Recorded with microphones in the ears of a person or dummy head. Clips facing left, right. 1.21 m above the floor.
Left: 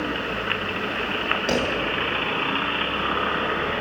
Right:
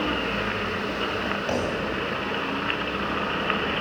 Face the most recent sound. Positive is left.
turn(degrees=30)  # may be behind; listen again after turning